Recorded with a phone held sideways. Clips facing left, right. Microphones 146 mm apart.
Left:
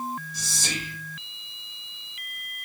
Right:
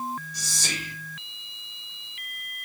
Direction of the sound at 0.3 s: 25° left (ahead or behind).